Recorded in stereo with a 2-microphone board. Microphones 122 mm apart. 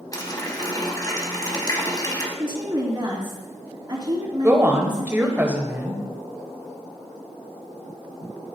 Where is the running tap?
30° left (ahead or behind), 1.2 m.